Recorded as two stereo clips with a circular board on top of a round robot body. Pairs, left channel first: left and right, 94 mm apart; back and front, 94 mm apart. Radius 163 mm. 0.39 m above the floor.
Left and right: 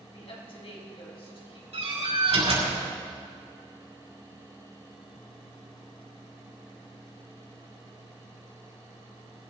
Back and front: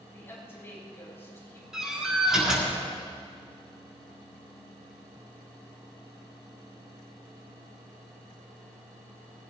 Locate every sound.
0.1 s a woman speaking: 115° left, 6 m
1.7 s a door slam: 85° right, 6.5 m